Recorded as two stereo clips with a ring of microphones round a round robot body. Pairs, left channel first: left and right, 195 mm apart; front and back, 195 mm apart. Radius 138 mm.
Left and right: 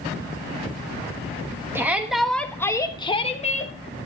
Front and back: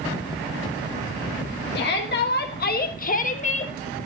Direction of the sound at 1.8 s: 15° right.